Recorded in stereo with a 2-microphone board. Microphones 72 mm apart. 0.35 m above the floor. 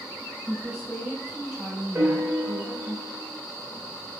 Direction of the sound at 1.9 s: 35° right (ahead or behind).